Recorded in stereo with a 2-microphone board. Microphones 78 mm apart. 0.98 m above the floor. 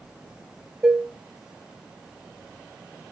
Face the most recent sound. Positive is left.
turn(degrees=-10)  # may be behind; listen again after turning